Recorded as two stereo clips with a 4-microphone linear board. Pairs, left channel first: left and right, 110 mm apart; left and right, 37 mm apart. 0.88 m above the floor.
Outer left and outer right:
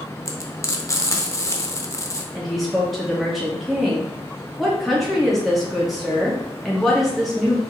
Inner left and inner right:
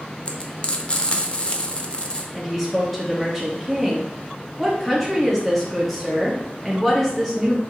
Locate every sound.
0.2 s frying: 30° left (ahead or behind), 0.5 m
2.3 s a woman speaking: centre (ahead or behind), 0.8 m